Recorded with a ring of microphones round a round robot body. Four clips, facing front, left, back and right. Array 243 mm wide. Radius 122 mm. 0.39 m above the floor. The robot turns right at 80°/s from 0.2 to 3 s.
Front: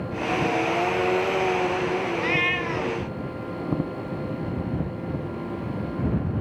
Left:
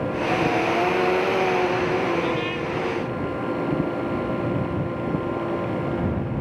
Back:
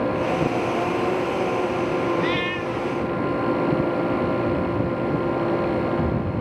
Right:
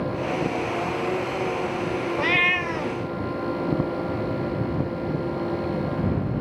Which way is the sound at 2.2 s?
90° right.